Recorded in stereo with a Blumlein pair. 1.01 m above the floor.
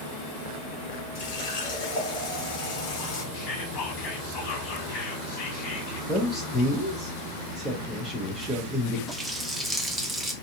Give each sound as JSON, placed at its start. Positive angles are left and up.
{"t": 1.1, "sound": "a running tap", "azimuth_deg": 45, "distance_m": 1.9}
{"t": 3.3, "sound": "whispering", "azimuth_deg": 35, "distance_m": 2.0}
{"t": 6.1, "sound": "a man speaking", "azimuth_deg": 5, "distance_m": 1.1}
{"t": 9.1, "sound": "a running tap", "azimuth_deg": -5, "distance_m": 0.8}